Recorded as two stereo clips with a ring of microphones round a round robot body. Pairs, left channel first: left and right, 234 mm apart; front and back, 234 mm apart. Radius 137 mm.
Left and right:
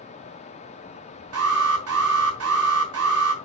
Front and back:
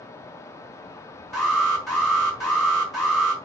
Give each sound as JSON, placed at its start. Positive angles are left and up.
{"t": 1.3, "sound": "an alarm", "azimuth_deg": -90, "distance_m": 3.5}